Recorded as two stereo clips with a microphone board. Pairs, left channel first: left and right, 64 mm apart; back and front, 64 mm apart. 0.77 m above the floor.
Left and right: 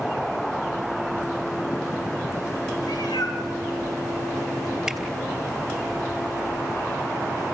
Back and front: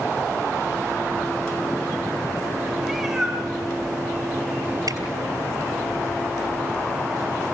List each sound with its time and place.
2.8 s a cat meowing: 90° left, 5 m; by 4.8 s 65° left, 6 m
4.9 s a finger snap: 5° right, 3 m